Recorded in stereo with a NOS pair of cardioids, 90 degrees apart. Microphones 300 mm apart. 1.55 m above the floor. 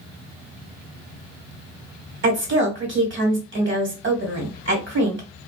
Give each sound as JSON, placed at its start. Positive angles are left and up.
{"t": 2.2, "sound": "a woman speaking", "azimuth_deg": -40, "distance_m": 1.5}